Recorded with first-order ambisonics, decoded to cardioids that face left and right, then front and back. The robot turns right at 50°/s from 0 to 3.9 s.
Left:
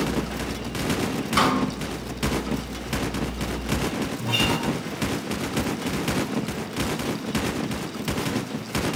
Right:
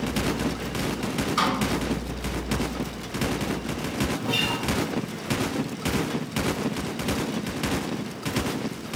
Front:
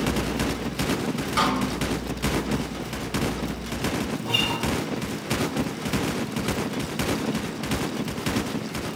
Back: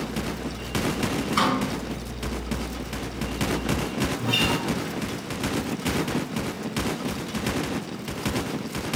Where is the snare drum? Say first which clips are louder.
Left 4 dB, even; 65° left, 2.5 m; by 1.6 s 75° left, 2.5 m.